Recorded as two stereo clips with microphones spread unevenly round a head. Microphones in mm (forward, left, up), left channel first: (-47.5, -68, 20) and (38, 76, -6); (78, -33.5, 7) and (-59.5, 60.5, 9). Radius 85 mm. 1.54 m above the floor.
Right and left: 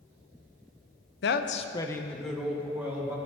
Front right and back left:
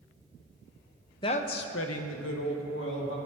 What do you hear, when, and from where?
1.2 s a woman speaking: 100° right, 0.8 m; by 3.2 s 20° right, 2.5 m